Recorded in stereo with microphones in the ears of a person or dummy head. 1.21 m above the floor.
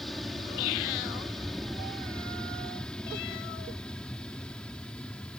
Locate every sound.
0.0 s an aircraft: 5° left (ahead or behind)